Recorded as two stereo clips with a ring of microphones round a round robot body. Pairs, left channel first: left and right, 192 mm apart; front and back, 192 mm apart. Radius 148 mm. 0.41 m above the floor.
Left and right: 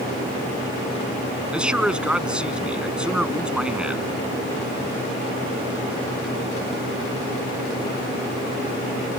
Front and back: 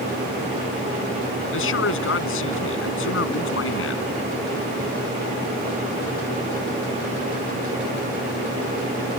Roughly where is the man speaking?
Ahead.